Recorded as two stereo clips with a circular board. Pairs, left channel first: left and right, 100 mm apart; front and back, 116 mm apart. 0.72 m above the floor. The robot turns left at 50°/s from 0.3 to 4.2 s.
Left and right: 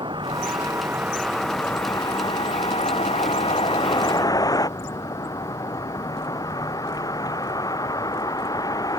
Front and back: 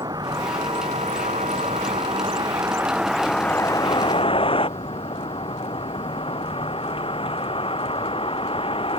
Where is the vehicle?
125° right; by 9.0 s 40° left.